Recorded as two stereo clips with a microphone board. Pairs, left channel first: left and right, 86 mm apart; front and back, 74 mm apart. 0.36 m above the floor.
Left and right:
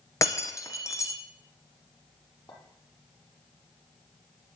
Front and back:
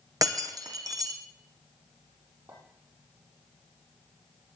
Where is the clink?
140° left, 8 m.